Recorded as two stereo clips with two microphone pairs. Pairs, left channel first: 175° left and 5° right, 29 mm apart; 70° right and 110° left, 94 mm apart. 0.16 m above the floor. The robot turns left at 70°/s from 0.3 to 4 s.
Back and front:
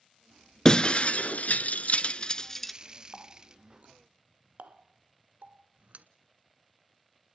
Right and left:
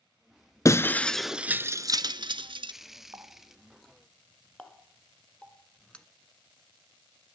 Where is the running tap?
65° left, 1.1 m; by 6.0 s 5° left, 1.1 m.